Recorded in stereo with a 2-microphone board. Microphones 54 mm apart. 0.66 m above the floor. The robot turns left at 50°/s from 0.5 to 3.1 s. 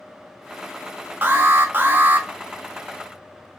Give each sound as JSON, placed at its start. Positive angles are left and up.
{"t": 1.2, "sound": "an alarm", "azimuth_deg": -70, "distance_m": 0.6}